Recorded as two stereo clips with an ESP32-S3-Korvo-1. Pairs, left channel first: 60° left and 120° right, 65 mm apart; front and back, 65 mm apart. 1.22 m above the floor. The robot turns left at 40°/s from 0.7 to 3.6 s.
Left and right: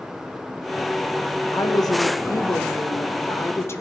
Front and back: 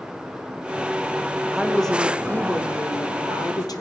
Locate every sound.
1.5 s a woman speaking: 95° left, 0.8 m; by 3.8 s 10° left, 0.8 m